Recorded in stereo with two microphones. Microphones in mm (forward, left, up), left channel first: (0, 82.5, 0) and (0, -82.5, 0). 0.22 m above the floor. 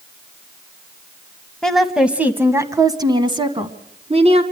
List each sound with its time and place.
1.6 s a woman speaking: 5° left (ahead or behind), 1.2 m; by 4.4 s 40° right (ahead or behind), 2 m